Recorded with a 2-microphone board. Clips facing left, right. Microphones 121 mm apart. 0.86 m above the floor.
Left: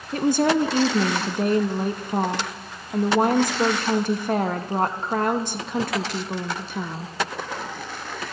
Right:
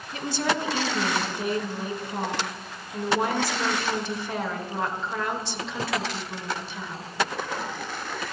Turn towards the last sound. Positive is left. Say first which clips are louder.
# left 8 dB
turn(degrees=50)  # may be behind; listen again after turning